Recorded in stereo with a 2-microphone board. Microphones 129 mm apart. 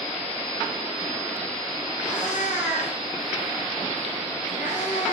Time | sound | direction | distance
2.0 | a cat meowing | 75° left (ahead or behind) | 5.5 m